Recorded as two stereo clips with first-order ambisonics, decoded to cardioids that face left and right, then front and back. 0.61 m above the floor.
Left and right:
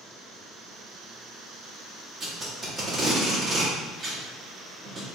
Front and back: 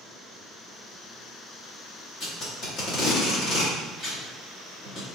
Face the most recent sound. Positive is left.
turn(degrees=-15)